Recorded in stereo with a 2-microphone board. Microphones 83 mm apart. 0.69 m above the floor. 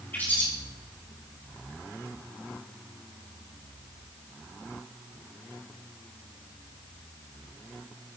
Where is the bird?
25° left (ahead or behind), 3.5 m.